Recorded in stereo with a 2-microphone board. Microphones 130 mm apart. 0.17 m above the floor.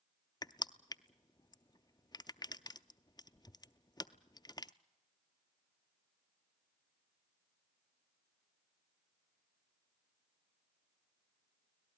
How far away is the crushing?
About 0.5 m.